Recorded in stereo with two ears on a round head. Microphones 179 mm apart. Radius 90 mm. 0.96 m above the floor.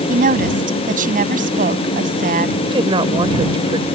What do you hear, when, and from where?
0.1 s a woman speaking: 45° right (ahead or behind)
2.6 s a woman speaking: 25° right (ahead or behind)